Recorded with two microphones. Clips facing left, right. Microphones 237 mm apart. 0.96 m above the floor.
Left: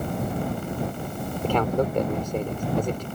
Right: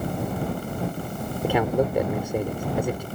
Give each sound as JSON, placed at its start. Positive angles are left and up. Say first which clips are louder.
{"t": 1.4, "sound": "a man speaking", "louder": "right 1 dB", "side_deg": -10}